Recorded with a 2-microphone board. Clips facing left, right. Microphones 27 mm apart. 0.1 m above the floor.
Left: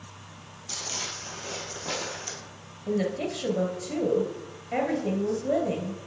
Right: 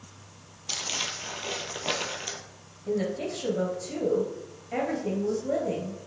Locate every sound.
0.7 s crumpling: 45° right (ahead or behind), 1.0 m
2.9 s a woman speaking: 10° left (ahead or behind), 1.5 m